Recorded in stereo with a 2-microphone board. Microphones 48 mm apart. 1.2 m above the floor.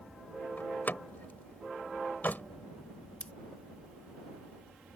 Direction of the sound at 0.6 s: 40° left (ahead or behind).